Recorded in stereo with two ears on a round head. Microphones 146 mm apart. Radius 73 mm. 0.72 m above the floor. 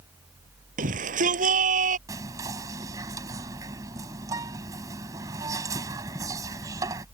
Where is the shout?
55° right (ahead or behind).